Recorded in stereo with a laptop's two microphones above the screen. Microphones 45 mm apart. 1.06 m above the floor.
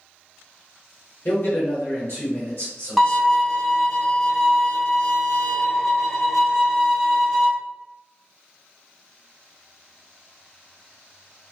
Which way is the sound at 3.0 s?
5° left (ahead or behind).